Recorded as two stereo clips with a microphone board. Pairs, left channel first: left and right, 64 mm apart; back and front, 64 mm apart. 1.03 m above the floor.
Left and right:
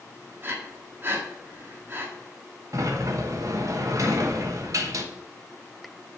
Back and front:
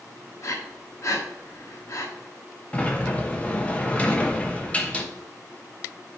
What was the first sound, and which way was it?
Breathing, 145° right.